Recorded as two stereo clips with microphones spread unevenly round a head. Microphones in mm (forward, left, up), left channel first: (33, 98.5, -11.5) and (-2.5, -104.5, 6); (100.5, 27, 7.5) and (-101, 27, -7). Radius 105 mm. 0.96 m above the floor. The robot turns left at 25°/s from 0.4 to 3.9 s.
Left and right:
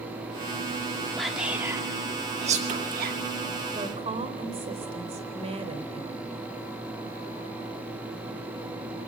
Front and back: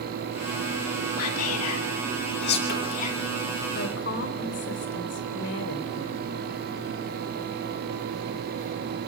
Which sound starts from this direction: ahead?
Whispering, at 1.2 s.